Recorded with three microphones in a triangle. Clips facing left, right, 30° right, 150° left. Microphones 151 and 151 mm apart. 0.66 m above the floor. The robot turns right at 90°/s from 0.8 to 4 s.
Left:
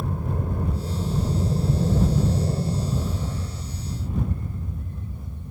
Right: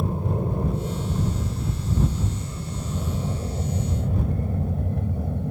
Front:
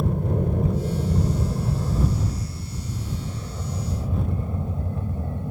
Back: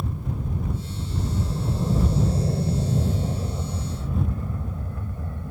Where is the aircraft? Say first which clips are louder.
Right 3 dB, front 7 dB; 25° right; by 5.5 s 95° right.